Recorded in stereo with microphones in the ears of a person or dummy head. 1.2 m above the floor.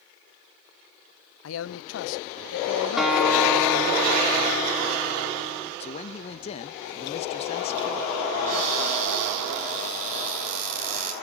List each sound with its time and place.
1.4 s a man speaking: 75° left (ahead or behind), 0.8 m
3.0 s a guitar: centre (ahead or behind), 2 m
5.8 s a man speaking: 25° left (ahead or behind), 0.6 m
8.5 s a cupboard door: 45° right (ahead or behind), 7.5 m